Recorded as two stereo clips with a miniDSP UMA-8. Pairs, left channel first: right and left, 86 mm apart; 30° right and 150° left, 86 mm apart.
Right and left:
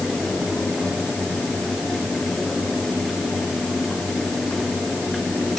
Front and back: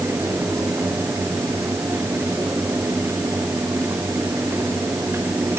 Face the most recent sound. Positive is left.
No sound to turn to.